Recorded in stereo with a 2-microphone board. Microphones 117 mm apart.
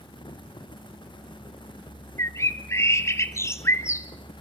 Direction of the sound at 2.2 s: 25° left (ahead or behind).